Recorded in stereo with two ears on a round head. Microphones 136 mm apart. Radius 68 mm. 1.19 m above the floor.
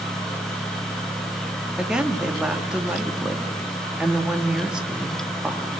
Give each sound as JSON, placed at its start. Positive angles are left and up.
{"t": 1.8, "sound": "a woman speaking", "side_deg": -5, "distance_m": 1.7}